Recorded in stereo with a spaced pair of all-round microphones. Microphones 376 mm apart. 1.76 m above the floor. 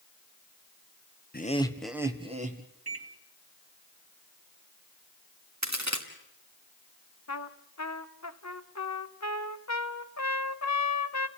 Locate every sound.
1.3 s laughter: 25° left (ahead or behind), 1.4 m; by 2.6 s 25° right (ahead or behind), 2 m
2.9 s a microwave: 75° right (ahead or behind), 2 m
5.6 s a crack: 45° right (ahead or behind), 2.5 m
7.3 s a trumpet: 45° left (ahead or behind), 1.0 m